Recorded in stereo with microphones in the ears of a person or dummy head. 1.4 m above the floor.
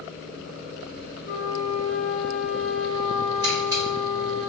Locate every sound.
1.2 s a flute: 50° left (ahead or behind), 1.7 m
3.4 s a camera shutter: 20° right (ahead or behind), 1.7 m